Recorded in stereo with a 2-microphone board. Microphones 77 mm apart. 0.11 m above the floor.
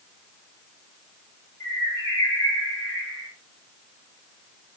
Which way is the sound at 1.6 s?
60° left (ahead or behind).